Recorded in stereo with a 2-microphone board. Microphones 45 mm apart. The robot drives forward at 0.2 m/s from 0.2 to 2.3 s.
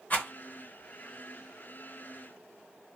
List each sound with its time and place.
0.1 s a rattle: 40° left (ahead or behind), 1.7 m